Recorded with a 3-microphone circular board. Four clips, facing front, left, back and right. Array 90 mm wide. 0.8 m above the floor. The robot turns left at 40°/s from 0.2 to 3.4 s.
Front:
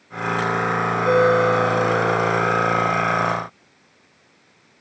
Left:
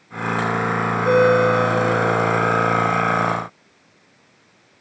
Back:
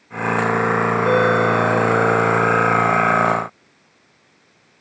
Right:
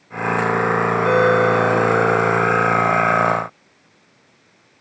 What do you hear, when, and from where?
1.0 s a ringtone: 90° right, 6.5 m; by 2.5 s 150° right, 6.5 m